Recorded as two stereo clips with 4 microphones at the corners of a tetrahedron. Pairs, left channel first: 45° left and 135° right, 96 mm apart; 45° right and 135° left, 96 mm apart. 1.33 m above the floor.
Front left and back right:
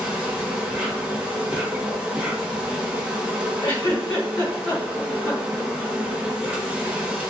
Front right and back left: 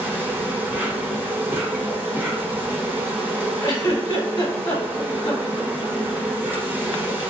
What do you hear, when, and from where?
0.0 s an insect: 165° left, 0.9 m
3.6 s a giggle: 5° left, 1.5 m